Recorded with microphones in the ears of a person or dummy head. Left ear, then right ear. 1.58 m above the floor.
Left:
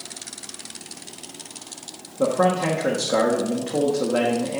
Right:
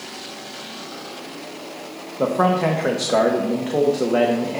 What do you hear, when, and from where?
2.2 s a man speaking: 15° right (ahead or behind), 0.6 m